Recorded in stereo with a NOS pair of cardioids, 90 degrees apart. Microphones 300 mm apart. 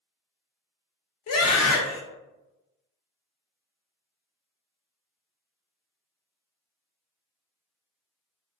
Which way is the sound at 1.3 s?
55° left.